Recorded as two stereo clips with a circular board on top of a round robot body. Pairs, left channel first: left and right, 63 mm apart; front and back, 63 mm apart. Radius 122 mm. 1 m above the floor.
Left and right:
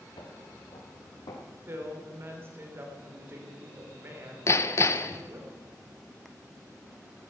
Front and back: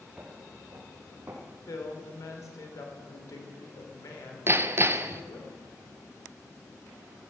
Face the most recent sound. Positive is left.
turn(degrees=130)